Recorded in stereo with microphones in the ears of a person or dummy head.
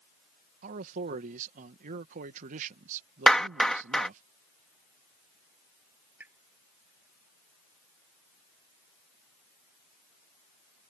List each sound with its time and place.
0.6 s a man speaking: 35° right (ahead or behind)
3.3 s a clap: centre (ahead or behind)
6.2 s a pop: 15° right (ahead or behind)